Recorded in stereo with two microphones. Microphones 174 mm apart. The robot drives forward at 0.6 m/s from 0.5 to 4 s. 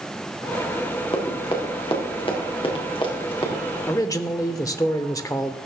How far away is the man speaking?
About 0.8 m.